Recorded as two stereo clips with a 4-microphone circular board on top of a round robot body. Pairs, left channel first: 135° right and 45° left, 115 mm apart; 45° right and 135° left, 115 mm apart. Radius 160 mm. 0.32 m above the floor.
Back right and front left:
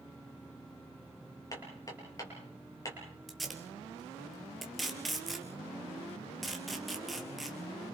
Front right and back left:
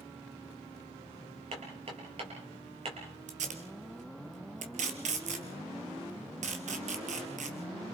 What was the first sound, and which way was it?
Hammering, 165° left.